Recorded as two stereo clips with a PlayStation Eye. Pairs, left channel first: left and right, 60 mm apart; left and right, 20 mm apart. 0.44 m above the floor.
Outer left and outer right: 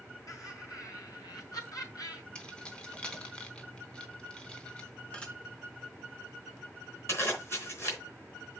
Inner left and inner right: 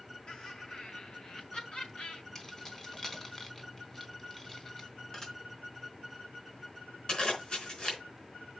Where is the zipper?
45° left (ahead or behind), 4 m.